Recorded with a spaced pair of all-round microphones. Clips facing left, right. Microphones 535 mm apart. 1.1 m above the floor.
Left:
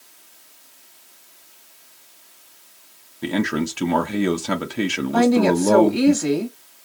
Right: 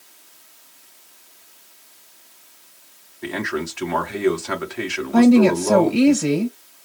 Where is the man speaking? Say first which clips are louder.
Left 4 dB; 55° left (ahead or behind), 0.8 m.